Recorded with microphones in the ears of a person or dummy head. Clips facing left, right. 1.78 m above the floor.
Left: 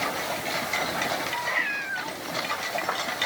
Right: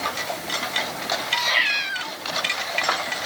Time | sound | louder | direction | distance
1.3 | a cat meowing | right 3 dB | 45° right (ahead or behind) | ?